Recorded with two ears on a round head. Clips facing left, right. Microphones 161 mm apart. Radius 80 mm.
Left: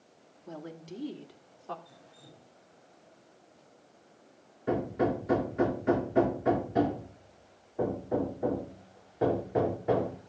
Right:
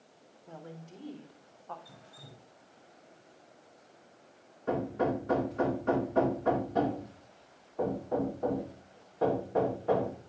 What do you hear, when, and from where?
0.5 s a woman speaking: 65° left (ahead or behind), 2.0 m; by 1.8 s 75° left (ahead or behind), 2.5 m
1.9 s dripping: 65° right (ahead or behind), 6.5 m
4.7 s hammering: 15° left (ahead or behind), 2.5 m